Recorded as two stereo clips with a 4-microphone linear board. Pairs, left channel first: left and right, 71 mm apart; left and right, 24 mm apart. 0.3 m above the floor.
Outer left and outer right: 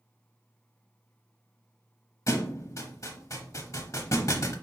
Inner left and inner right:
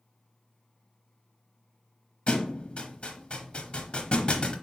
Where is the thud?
50° left (ahead or behind), 0.8 m.